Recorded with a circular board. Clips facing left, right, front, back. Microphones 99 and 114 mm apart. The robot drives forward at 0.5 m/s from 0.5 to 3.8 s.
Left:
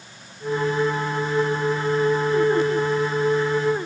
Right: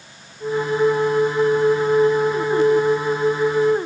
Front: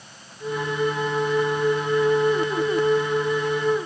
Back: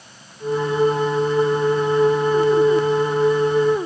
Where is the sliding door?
I don't hear a sliding door.